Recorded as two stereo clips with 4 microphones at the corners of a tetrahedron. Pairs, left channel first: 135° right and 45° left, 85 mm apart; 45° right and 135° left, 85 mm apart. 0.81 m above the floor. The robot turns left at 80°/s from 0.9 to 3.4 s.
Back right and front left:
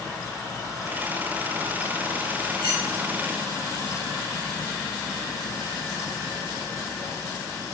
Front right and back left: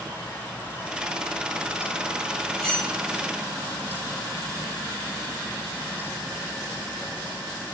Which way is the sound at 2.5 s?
50° left.